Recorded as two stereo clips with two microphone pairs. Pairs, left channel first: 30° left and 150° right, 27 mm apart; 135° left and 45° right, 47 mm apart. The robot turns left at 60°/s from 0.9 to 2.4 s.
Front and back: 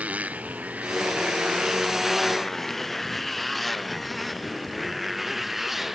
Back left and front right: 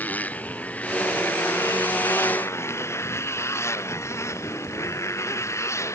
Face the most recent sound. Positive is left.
turn(degrees=130)